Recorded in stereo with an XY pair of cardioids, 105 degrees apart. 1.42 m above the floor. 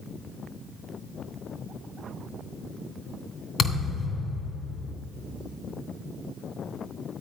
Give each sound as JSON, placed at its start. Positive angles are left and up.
{"t": 3.6, "sound": "a thud", "azimuth_deg": 60, "distance_m": 2.5}